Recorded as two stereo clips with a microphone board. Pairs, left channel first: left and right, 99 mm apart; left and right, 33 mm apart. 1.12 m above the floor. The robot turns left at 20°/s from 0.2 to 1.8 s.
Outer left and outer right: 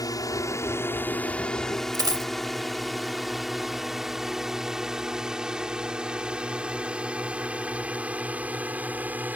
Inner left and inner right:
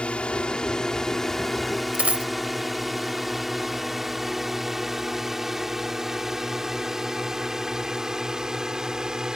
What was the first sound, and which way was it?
A drone, 40° left (ahead or behind).